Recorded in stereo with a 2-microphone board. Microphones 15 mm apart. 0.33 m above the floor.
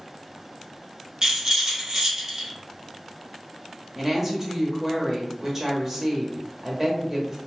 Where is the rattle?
35° right (ahead or behind), 1.1 m.